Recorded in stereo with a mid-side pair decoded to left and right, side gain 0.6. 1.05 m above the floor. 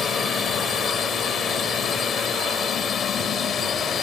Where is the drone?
35° left.